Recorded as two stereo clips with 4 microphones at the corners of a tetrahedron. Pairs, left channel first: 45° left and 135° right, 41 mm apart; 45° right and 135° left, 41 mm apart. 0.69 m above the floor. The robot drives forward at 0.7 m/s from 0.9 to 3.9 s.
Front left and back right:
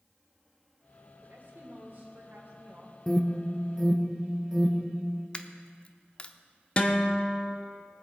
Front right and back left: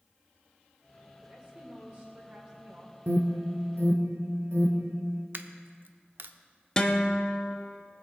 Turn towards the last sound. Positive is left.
turn(degrees=10)